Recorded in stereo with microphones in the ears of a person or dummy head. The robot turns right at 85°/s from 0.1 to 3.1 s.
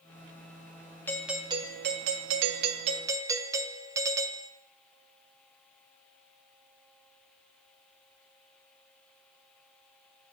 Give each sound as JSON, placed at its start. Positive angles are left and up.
{"t": 1.1, "sound": "a doorbell", "azimuth_deg": 170, "distance_m": 0.6}